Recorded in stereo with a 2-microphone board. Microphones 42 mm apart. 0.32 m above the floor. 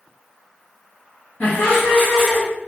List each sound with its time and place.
1.4 s laughter: 40° left (ahead or behind), 1.6 m; by 2.4 s 10° left (ahead or behind), 1.8 m